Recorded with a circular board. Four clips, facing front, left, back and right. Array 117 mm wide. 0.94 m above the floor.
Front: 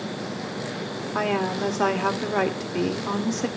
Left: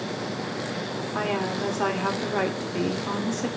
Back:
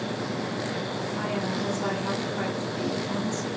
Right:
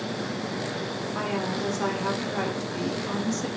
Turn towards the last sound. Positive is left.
turn(degrees=15)